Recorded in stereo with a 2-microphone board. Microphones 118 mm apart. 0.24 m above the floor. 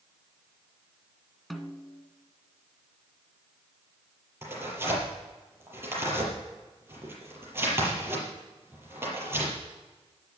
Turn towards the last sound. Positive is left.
turn(degrees=-20)  # may be behind; listen again after turning